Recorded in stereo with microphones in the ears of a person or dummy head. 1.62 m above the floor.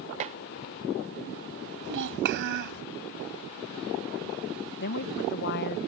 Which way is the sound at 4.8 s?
65° left (ahead or behind).